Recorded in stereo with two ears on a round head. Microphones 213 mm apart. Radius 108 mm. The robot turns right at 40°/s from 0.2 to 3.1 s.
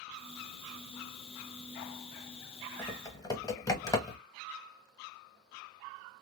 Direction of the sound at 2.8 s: 10° left (ahead or behind).